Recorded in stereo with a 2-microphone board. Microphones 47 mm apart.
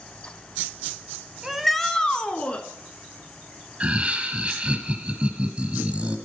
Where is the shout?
10° right (ahead or behind), 1.0 m; by 2.6 s 30° left (ahead or behind), 2 m.